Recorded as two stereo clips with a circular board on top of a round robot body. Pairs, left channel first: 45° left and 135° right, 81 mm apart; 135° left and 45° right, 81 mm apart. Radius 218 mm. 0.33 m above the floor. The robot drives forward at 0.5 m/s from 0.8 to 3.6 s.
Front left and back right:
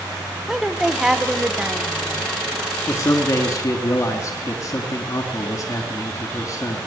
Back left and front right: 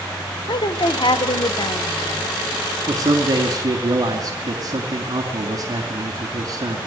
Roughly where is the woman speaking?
Behind left.